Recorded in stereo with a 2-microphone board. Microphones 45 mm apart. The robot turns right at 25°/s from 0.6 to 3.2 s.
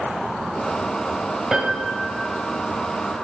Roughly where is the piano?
Centre.